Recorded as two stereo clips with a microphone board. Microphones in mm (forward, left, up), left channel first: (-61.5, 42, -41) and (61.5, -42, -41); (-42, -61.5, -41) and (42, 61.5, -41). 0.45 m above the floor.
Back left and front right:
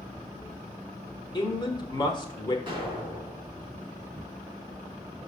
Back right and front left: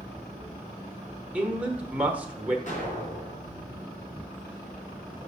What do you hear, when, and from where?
1.3 s a man speaking: 130° left, 1.1 m
2.7 s an explosion: 90° right, 3 m